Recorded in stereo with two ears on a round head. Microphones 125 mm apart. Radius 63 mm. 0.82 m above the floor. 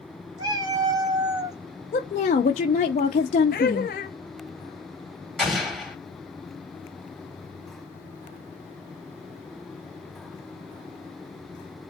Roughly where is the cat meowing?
Right.